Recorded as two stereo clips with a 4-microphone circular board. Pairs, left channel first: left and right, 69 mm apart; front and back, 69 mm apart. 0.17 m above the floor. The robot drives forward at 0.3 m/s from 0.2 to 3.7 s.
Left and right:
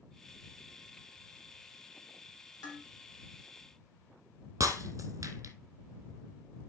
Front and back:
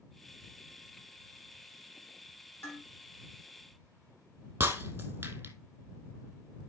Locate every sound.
2.6 s dishes clattering: 60° left, 5 m
4.6 s breaking glass: 130° right, 0.9 m